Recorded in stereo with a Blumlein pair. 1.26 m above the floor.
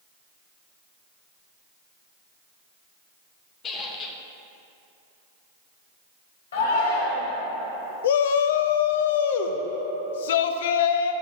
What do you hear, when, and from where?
3.6 s a squeak: 25° left, 0.7 m
6.5 s a shout: 60° left, 1.7 m
8.0 s a shout: 55° left, 0.5 m